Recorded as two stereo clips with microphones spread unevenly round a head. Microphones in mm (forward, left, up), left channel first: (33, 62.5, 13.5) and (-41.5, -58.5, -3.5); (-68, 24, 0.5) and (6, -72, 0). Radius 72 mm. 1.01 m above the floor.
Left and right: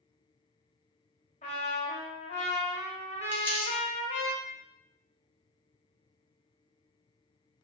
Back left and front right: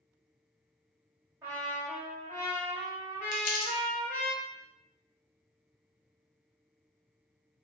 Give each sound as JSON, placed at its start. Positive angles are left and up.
{"t": 1.4, "sound": "a trumpet", "azimuth_deg": 20, "distance_m": 0.7}
{"t": 3.3, "sound": "crumpling", "azimuth_deg": 135, "distance_m": 0.7}